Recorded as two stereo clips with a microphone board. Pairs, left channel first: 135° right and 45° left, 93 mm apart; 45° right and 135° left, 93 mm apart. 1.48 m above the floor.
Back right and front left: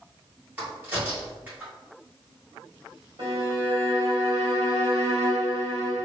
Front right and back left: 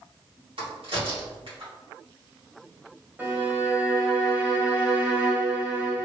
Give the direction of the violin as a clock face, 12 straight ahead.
10 o'clock.